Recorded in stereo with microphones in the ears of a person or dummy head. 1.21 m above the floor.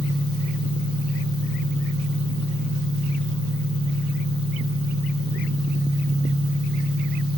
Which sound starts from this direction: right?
An engine running, at 0.0 s.